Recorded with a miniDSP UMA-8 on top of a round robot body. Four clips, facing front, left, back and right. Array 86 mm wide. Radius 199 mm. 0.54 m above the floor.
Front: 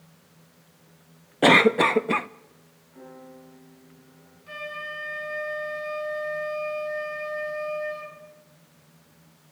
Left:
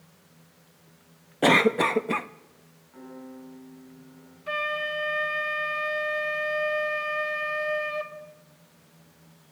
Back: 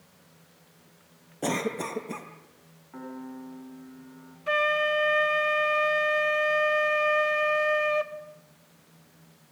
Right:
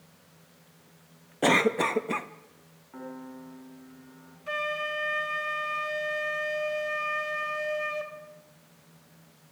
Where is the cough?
10° left, 0.9 m.